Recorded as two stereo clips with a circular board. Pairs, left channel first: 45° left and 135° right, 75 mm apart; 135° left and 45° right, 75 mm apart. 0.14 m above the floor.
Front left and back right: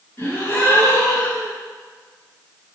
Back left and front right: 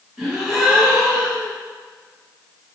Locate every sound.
0.2 s a gasp: 45° left, 1.7 m